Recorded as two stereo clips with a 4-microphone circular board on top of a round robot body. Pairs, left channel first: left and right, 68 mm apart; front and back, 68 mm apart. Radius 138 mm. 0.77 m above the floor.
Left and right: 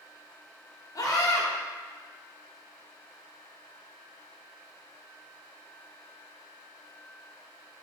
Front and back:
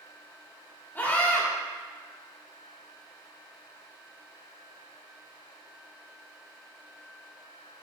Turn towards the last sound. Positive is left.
turn(degrees=60)